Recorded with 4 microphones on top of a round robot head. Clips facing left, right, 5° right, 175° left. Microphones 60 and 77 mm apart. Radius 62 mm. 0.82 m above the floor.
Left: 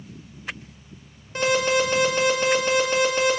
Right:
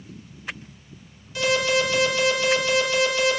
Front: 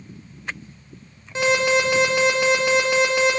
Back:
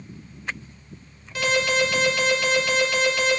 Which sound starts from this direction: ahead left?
An alarm, at 1.4 s.